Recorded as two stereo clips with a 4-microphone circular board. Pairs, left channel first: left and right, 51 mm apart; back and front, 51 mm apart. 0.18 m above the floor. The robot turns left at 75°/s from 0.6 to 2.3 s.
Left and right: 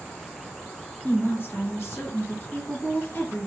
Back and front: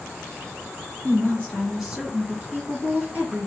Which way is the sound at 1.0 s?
140° left.